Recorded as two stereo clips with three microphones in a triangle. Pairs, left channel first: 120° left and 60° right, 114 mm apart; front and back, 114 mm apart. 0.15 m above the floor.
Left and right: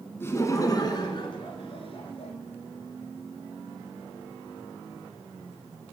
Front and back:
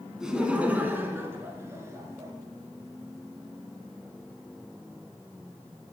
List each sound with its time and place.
0.2 s laughter: 105° left, 1.0 m; by 2.3 s 120° left, 1.9 m